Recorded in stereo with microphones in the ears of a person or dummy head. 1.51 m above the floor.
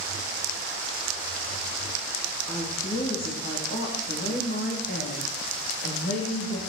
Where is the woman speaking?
30° left (ahead or behind), 3.5 m; by 6.6 s 70° left (ahead or behind), 3.5 m.